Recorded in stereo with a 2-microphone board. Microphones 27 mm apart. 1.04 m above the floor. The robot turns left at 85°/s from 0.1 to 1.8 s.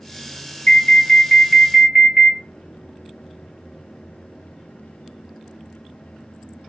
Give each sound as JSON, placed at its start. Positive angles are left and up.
{"t": 0.7, "sound": "an alarm", "azimuth_deg": 85, "distance_m": 1.8}